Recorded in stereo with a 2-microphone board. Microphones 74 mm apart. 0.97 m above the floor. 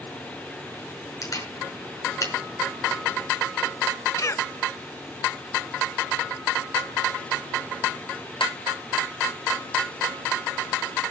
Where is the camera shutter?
50° left (ahead or behind), 5.5 m.